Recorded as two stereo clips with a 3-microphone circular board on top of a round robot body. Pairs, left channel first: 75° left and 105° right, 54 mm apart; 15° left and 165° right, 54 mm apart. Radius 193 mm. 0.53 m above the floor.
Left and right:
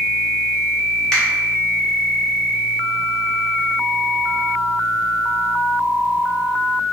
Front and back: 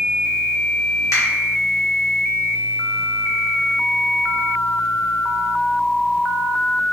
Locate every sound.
1.1 s a finger snap: straight ahead, 1.5 m